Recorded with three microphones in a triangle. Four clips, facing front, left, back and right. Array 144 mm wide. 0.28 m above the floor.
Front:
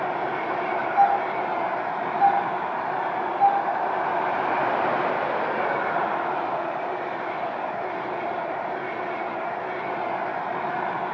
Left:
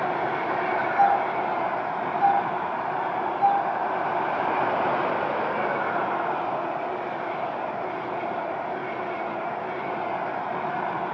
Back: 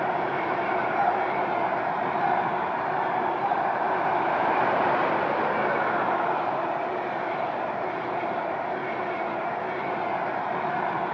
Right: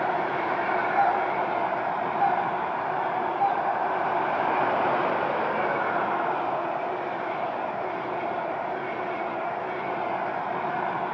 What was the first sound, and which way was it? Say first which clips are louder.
A doorbell: left 4 dB, front 7 dB; 25° right.